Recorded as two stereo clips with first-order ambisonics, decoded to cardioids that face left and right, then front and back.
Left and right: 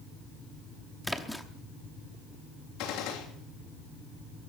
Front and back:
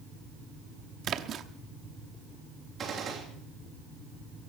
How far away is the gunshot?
About 3 m.